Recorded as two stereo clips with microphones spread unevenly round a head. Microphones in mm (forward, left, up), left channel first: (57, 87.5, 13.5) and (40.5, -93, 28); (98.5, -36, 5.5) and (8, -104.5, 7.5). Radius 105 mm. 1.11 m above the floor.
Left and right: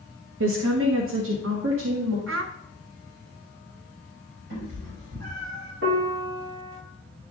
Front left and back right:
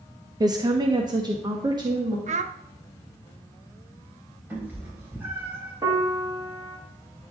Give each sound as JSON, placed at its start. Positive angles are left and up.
{"t": 0.4, "sound": "a woman speaking", "azimuth_deg": -85, "distance_m": 0.8}
{"t": 2.3, "sound": "a child speaking", "azimuth_deg": -125, "distance_m": 0.9}
{"t": 4.5, "sound": "a cat meowing", "azimuth_deg": -70, "distance_m": 3.5}
{"t": 5.8, "sound": "a piano", "azimuth_deg": -85, "distance_m": 2.5}